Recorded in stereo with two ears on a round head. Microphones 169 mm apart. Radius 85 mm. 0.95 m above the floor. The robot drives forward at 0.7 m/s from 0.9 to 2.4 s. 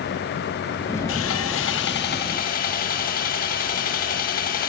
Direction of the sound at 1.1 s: 75° left (ahead or behind).